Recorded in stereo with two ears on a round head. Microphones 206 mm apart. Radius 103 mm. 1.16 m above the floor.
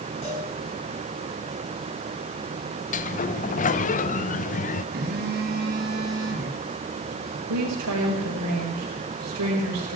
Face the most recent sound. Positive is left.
turn(degrees=-85)